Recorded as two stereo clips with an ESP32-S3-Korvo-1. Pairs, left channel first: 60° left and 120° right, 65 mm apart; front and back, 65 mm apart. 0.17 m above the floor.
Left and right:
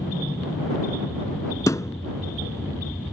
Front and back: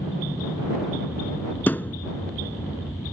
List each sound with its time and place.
0.0 s an aircraft: 15° left; by 3.1 s 5° left
1.7 s a thud: 55° left